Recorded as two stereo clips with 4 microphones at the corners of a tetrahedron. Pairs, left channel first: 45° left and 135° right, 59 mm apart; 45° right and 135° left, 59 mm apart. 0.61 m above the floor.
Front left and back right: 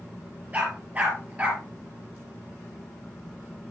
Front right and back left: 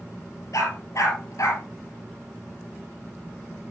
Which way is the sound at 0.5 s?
70° right.